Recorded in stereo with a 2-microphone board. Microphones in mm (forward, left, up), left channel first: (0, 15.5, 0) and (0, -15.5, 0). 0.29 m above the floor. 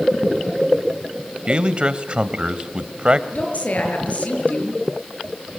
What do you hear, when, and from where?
1.5 s a man speaking: 35° right (ahead or behind), 1.2 m
3.3 s a woman speaking: 55° left (ahead or behind), 6 m